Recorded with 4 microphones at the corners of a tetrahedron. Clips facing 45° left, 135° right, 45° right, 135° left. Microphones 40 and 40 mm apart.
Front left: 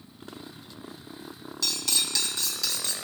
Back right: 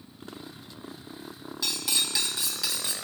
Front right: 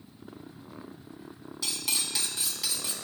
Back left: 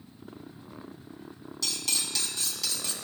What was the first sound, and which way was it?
Cutlery clinking, 85° right.